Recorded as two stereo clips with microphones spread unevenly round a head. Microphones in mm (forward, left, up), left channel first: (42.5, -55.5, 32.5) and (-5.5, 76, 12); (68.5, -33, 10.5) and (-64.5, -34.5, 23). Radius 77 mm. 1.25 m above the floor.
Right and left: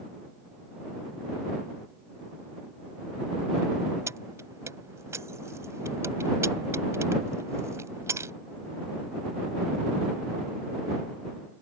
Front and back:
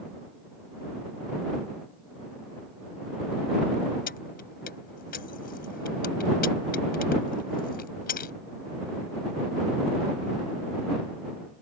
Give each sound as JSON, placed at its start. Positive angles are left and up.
{"t": 4.1, "sound": "keys jangling", "azimuth_deg": 40}